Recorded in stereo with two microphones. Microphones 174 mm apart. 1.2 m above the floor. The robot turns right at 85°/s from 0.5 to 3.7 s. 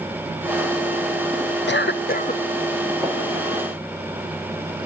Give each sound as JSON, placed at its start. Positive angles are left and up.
{"t": 1.7, "sound": "a cough", "azimuth_deg": 85, "distance_m": 0.9}
{"t": 3.0, "sound": "tapping", "side_deg": 0, "distance_m": 5.5}